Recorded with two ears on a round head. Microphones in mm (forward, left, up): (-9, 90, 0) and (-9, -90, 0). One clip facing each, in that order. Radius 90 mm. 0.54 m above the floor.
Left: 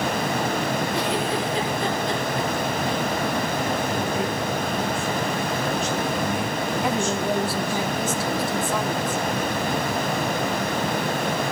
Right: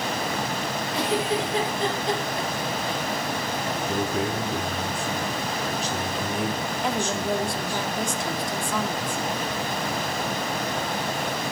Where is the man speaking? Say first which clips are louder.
Left 1 dB; 35° right (ahead or behind), 6 m.